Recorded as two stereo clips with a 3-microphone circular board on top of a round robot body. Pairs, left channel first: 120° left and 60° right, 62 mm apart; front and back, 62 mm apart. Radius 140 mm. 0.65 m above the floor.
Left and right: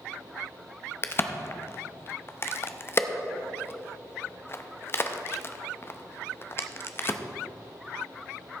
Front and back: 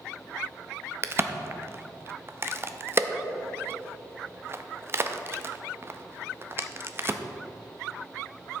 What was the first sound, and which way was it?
A crack, 155° left.